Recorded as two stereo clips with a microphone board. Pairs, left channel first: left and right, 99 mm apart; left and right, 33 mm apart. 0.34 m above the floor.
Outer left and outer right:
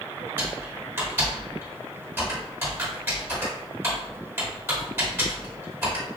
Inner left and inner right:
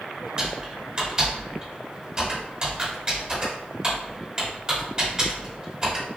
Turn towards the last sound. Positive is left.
turn(degrees=-20)  # may be behind; listen again after turning